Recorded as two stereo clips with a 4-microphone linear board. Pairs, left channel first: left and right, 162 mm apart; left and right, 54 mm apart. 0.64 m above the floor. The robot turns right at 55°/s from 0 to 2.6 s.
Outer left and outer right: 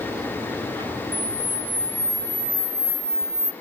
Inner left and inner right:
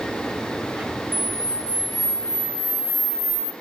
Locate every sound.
1.1 s a camera shutter: 45° right, 1.5 m; by 3.5 s 35° left, 1.5 m